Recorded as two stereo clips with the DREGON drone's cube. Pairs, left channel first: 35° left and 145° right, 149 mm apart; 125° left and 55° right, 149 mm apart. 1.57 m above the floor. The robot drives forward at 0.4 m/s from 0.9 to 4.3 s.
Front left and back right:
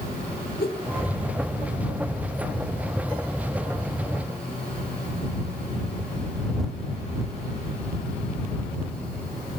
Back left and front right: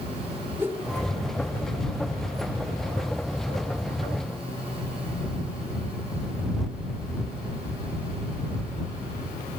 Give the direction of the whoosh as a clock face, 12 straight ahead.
11 o'clock.